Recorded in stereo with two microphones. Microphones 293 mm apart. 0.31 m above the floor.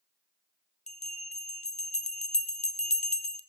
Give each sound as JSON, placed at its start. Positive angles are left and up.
{"t": 0.9, "sound": "a bell", "side_deg": 25, "distance_m": 0.5}